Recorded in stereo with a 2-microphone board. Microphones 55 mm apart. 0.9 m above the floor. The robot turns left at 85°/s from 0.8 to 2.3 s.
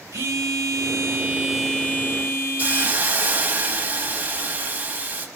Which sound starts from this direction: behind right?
A phone buzzing, at 0.1 s.